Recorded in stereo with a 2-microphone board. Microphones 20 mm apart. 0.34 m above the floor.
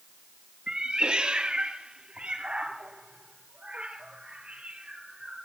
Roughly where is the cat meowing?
Right.